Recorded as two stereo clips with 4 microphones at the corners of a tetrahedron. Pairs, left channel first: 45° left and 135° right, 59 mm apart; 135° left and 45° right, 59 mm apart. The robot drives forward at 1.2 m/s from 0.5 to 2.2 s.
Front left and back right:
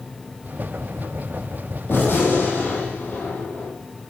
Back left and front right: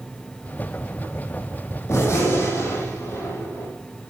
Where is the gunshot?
100° left, 9 m; by 3.7 s 105° left, 9 m.